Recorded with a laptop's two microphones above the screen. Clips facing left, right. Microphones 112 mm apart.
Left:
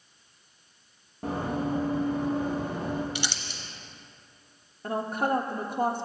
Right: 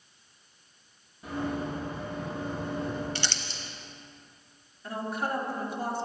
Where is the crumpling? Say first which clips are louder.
Left 1 dB; 15° left (ahead or behind), 0.7 m.